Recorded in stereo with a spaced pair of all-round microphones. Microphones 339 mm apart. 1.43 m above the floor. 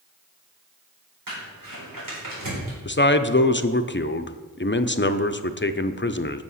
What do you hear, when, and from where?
1.3 s crumpling: 70° right (ahead or behind), 4.5 m
2.9 s a man speaking: 35° left (ahead or behind), 0.5 m